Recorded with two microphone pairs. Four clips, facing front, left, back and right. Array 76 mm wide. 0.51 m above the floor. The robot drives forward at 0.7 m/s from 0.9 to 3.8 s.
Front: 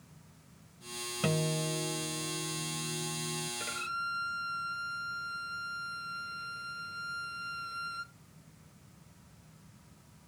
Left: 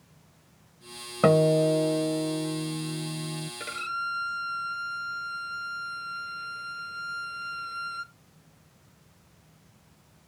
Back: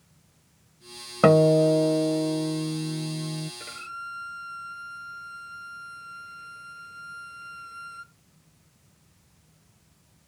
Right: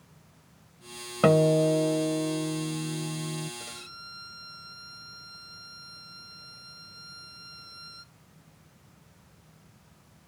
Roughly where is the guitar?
Behind.